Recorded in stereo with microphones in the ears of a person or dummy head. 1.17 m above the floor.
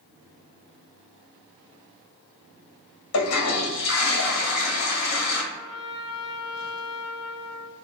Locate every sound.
3.1 s a toilet flushing: 80° left, 1.2 m
5.5 s a trumpet: 25° right (ahead or behind), 0.8 m